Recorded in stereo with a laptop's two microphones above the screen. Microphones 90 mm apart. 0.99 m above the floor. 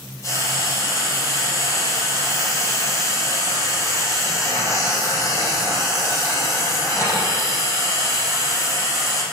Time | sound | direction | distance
0.2 | frying | 30° left (ahead or behind) | 4.5 m